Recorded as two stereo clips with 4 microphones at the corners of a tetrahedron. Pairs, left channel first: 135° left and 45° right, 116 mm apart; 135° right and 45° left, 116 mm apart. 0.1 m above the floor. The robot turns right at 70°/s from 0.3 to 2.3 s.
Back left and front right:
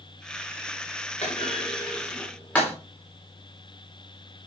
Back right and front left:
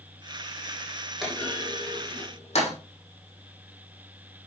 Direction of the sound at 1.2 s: 135° left.